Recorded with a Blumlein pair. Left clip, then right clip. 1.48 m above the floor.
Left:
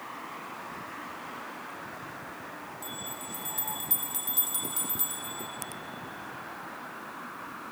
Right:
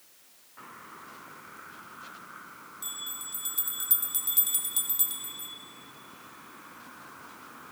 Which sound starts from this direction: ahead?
A bell, at 2.8 s.